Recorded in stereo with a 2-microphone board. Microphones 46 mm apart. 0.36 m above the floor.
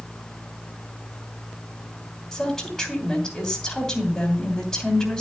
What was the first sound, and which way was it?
A woman speaking, 10° left (ahead or behind).